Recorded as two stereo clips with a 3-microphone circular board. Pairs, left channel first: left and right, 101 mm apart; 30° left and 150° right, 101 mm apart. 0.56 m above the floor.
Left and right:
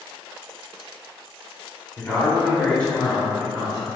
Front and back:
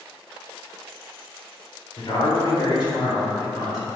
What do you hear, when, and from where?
2.0 s a man speaking: 40° left, 1.7 m; by 3.9 s 15° right, 1.9 m